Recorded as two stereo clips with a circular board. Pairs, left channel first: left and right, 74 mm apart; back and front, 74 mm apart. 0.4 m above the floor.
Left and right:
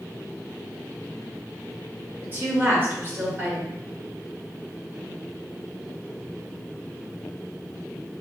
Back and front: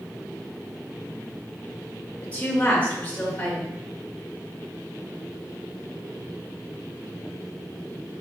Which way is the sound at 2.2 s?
125° right.